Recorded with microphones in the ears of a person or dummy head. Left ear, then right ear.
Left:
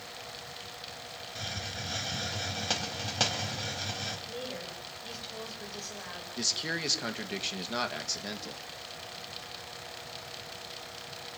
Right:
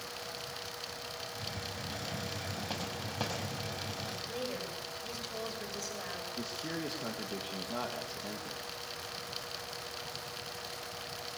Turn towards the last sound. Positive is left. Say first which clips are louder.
# left 12 dB
turn(degrees=65)  # may be behind; listen again after turning